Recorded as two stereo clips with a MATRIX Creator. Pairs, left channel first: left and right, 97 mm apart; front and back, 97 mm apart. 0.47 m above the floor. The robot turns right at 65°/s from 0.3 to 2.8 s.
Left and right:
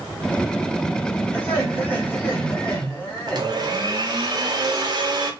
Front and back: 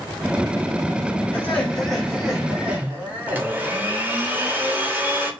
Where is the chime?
I don't hear a chime.